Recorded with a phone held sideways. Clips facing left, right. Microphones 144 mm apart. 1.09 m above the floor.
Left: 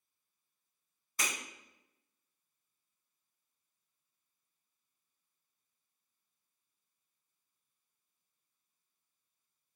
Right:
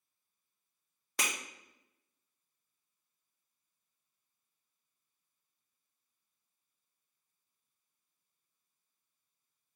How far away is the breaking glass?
About 1.3 m.